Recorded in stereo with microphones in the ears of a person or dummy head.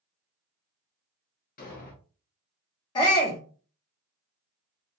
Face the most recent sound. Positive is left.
turn(degrees=20)  # may be behind; listen again after turning